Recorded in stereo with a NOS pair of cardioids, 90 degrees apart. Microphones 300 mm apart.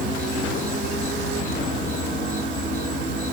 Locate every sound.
0.0 s an insect: 30° left, 2.5 m